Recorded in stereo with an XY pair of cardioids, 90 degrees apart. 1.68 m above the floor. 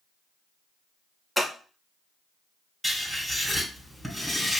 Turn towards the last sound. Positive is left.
turn(degrees=-15)